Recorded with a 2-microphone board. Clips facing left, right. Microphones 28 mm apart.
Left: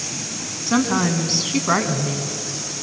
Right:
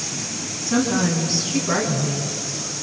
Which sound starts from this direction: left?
A woman speaking, at 0.7 s.